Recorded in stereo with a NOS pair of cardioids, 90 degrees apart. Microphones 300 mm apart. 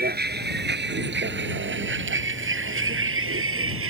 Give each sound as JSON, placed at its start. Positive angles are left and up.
{"t": 0.0, "sound": "a vehicle", "azimuth_deg": -30}